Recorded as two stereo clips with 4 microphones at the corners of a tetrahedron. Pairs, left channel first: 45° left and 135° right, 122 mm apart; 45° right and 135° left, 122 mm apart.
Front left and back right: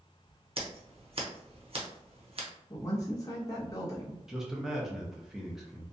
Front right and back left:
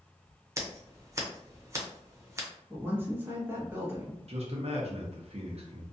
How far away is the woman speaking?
About 0.8 m.